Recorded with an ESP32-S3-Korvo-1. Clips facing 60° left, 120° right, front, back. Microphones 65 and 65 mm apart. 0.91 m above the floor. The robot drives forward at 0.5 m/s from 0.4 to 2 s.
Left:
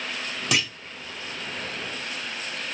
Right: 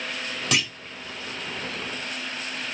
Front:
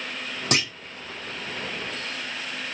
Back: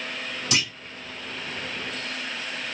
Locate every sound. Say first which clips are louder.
0.5 s a clunk: even, front 2 dB; 25° right, 1.4 m; by 0.7 s 30° right, 1.4 m